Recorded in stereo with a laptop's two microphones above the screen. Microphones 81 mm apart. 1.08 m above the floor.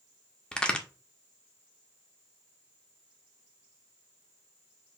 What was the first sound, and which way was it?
A crack, 10° left (ahead or behind).